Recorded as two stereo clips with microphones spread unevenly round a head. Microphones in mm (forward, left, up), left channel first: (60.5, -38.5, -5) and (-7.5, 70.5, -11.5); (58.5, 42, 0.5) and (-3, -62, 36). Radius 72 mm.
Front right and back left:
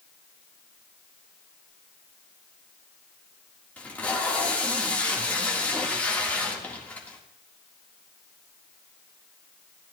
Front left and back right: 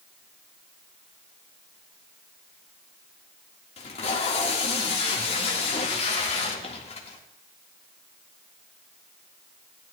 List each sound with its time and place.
3.8 s tape being pulled: 20° left, 1.9 m